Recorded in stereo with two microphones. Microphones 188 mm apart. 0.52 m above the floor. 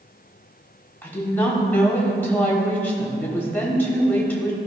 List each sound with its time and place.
1.0 s a woman speaking: 10° left (ahead or behind), 1.5 m